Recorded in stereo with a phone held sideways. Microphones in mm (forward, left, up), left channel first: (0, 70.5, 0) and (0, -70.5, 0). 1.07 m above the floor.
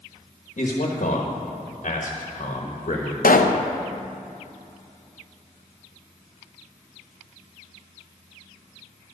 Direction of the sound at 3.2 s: 85° left.